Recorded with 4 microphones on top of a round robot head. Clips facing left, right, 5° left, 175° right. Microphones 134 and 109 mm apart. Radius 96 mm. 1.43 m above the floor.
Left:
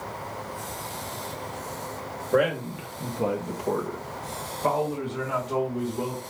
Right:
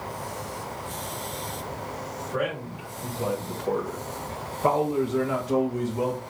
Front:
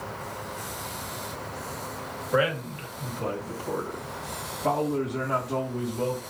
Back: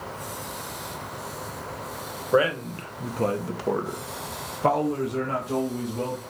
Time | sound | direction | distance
2.3 | a man speaking | 130° left | 1.2 m